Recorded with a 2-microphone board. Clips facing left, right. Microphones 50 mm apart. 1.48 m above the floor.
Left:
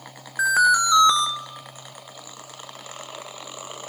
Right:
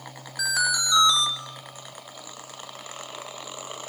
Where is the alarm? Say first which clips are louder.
Left 8 dB; 30° left (ahead or behind), 1.8 m.